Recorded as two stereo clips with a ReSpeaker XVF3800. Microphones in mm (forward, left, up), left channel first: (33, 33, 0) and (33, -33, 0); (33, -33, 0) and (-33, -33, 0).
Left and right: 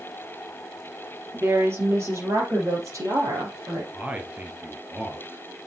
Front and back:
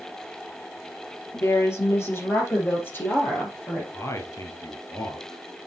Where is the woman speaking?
40° right, 3.5 m; by 3.8 s 60° right, 5 m.